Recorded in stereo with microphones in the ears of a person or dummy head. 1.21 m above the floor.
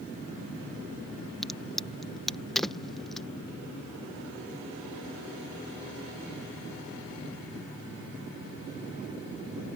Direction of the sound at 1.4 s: 5° left (ahead or behind).